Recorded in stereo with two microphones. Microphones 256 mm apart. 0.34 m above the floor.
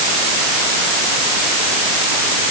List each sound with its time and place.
Only background noise.